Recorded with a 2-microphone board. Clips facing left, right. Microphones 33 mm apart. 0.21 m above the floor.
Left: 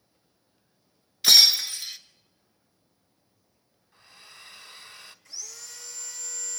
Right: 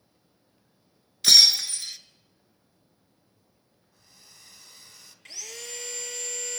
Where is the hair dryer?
35° left (ahead or behind), 1.5 m.